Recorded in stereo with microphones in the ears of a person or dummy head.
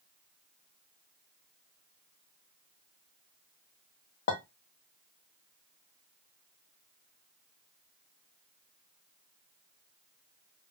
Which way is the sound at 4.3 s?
50° left (ahead or behind).